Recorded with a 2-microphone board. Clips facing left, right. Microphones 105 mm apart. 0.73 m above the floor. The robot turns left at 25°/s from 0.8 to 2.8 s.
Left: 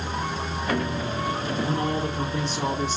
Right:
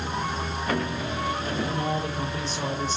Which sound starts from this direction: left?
A man speaking, at 1.6 s.